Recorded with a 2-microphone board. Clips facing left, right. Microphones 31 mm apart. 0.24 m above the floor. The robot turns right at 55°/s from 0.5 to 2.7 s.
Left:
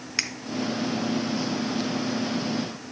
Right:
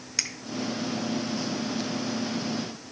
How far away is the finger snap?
About 0.8 m.